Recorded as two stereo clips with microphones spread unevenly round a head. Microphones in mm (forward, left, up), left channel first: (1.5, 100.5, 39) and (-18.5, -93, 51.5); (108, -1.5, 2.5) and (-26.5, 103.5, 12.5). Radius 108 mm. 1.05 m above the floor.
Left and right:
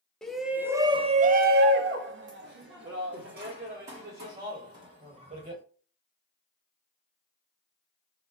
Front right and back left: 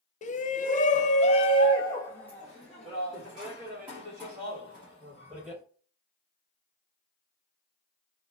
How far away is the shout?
About 0.7 m.